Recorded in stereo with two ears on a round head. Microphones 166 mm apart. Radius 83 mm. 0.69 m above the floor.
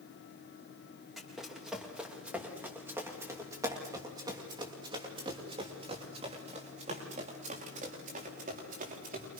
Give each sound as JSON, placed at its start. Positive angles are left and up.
{"t": 1.2, "sound": "running footsteps", "side_deg": 0, "distance_m": 8.5}